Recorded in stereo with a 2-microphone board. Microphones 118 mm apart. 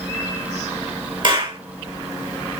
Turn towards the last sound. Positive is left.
turn(degrees=-45)  # may be behind; listen again after turning